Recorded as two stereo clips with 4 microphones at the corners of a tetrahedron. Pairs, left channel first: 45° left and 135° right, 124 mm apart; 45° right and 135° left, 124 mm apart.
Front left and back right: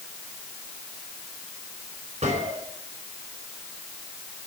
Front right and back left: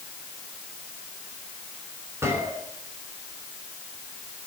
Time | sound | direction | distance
2.2 | a gunshot | 155° right | 5.5 m